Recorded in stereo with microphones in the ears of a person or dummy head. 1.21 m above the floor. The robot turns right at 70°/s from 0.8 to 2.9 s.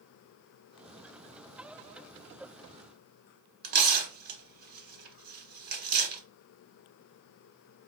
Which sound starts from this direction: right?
Tearing paper, at 3.6 s.